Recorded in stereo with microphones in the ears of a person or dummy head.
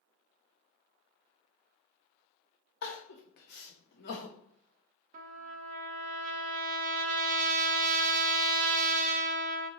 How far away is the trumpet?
About 0.8 m.